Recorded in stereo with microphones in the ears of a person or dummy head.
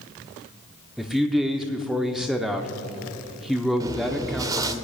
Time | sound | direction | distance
1.0 | a man speaking | 5° right (ahead or behind) | 0.7 m
3.8 | chewing | 20° right (ahead or behind) | 0.8 m